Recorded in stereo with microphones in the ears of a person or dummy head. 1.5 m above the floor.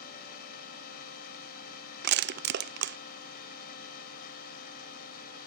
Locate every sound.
0.0 s a machine running: 55° left (ahead or behind)
2.0 s crushing: 60° right (ahead or behind)